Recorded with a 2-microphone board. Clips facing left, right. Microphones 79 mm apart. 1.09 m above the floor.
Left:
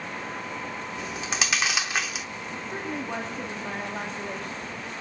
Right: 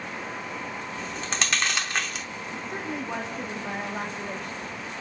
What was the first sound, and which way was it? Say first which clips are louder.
Chewing: left 1 dB; 5° left (ahead or behind).